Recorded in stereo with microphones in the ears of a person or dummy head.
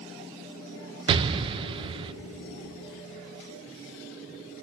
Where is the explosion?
30° right (ahead or behind), 0.6 m.